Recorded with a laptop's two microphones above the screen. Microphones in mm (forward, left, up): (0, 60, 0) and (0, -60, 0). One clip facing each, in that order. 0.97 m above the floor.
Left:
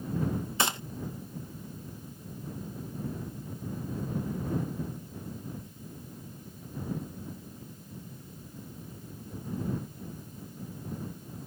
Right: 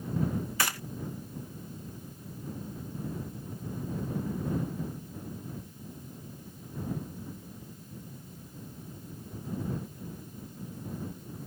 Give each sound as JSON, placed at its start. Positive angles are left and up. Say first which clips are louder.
{"t": 0.6, "sound": "a gunshot", "louder": "left 6 dB", "side_deg": 25}